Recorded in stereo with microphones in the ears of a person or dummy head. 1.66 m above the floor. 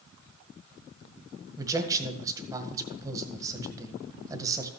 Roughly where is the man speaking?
Centre.